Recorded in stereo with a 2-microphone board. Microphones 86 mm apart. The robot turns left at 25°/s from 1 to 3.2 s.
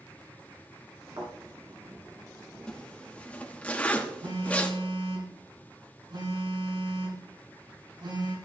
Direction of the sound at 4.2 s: 70° right (ahead or behind).